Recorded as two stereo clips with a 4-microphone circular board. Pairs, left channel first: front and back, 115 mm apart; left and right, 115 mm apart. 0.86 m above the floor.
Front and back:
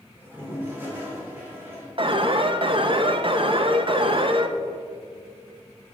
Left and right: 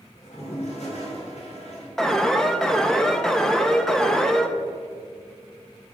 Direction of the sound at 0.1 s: 110° left.